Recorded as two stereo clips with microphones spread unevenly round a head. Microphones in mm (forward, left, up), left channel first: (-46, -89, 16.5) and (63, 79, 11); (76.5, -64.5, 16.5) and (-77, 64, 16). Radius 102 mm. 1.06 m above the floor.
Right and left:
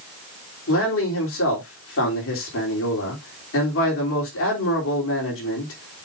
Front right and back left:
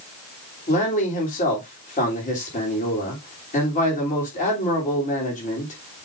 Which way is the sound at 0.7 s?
95° right.